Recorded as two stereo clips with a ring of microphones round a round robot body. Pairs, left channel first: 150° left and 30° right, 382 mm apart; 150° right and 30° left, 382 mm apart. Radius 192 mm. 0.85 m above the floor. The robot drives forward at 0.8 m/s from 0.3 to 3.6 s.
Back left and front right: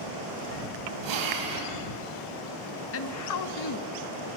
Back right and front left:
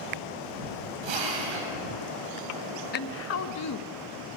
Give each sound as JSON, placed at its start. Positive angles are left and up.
{"t": 1.0, "sound": "a drill", "azimuth_deg": 10, "distance_m": 5.5}
{"t": 2.9, "sound": "a woman speaking", "azimuth_deg": 165, "distance_m": 1.0}